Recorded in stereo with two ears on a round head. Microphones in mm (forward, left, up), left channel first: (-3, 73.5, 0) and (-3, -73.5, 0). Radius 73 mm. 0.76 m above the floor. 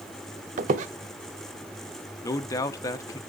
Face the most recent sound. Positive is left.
turn(degrees=20)  # may be behind; listen again after turning